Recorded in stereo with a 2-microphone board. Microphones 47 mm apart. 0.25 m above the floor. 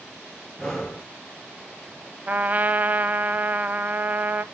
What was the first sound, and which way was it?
Breathing, 10° left (ahead or behind).